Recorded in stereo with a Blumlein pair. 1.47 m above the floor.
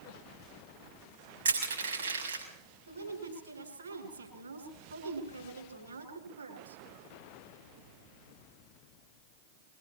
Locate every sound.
1.4 s crushing: 70° right, 7 m
2.9 s a woman speaking: 70° right, 8.5 m